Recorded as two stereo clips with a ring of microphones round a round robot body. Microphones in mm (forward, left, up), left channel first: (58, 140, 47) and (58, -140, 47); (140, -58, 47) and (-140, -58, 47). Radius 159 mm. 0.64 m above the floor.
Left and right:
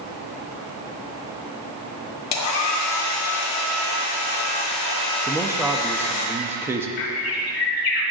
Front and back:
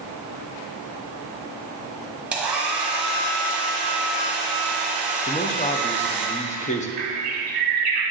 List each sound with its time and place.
2.3 s a hair dryer: 95° left, 1.2 m
5.3 s a man speaking: 20° right, 0.6 m
7.0 s a bird: 115° left, 0.8 m